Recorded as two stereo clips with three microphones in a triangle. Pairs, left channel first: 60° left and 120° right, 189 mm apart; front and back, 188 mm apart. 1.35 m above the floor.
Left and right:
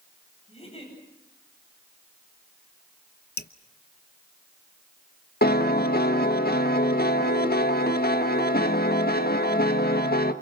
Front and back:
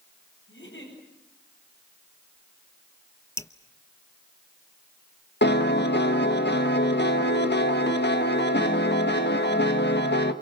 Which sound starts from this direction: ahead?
A giggle, at 0.5 s.